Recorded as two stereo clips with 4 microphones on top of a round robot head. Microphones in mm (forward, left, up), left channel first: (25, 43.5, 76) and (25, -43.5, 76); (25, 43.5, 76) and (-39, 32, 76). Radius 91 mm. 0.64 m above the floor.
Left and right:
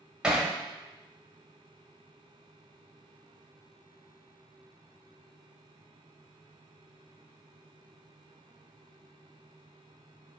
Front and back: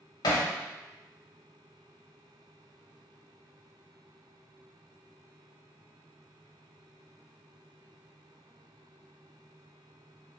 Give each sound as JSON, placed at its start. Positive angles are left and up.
{"t": 0.2, "sound": "hammering", "azimuth_deg": -10, "distance_m": 0.6}